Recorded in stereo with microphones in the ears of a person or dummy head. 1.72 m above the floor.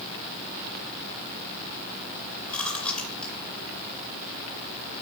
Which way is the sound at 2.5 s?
15° left (ahead or behind).